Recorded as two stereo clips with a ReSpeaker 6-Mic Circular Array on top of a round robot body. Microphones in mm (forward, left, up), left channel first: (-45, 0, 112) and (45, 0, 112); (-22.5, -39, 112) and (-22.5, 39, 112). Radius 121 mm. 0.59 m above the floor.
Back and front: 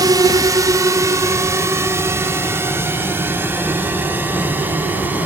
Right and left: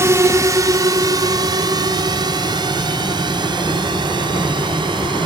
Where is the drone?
40° left; by 5.3 s 70° left.